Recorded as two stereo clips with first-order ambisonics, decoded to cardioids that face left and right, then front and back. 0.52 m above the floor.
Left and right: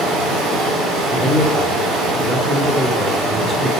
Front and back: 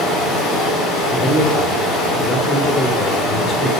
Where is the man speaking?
40° right, 1.2 m.